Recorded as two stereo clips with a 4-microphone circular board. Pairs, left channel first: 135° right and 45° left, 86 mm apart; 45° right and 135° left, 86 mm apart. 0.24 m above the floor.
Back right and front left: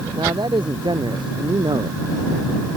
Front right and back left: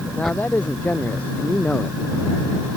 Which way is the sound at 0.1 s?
25° left.